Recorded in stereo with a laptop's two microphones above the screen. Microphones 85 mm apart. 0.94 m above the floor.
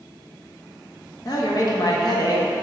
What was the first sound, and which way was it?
A man speaking, 45° left (ahead or behind).